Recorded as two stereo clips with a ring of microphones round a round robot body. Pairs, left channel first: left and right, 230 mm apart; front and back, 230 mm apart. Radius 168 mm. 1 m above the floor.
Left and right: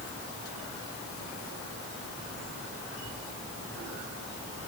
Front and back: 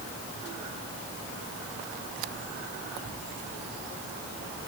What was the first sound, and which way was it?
Only background noise.